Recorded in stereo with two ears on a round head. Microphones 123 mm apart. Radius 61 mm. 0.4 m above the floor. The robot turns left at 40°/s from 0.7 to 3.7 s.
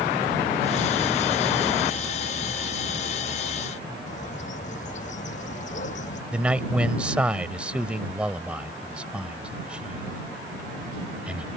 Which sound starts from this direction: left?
A bird, at 4.1 s.